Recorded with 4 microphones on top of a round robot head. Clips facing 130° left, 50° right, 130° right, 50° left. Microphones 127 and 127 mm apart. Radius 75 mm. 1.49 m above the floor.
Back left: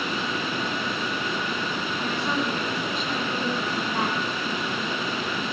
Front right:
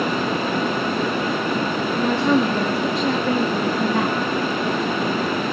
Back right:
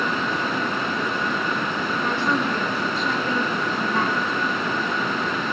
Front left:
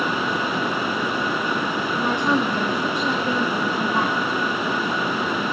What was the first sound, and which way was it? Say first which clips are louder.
A woman speaking: front right 11 dB, front left 3 dB; 25° right.